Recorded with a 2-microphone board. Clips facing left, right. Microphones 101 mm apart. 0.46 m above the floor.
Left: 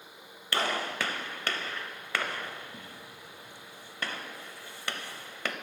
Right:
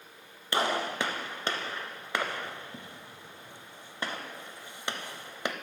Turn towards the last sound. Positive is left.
turn(degrees=-20)  # may be behind; listen again after turning